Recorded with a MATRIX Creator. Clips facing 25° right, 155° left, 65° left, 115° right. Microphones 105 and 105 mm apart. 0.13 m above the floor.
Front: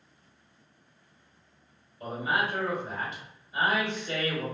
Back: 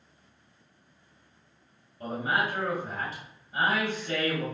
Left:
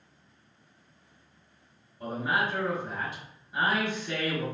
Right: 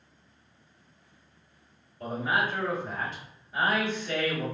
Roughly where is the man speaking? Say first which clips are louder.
Back 1 dB, right 1 dB; behind left.